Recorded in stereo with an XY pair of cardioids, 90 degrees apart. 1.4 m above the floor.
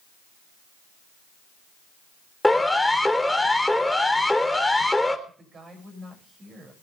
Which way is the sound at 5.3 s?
50° right.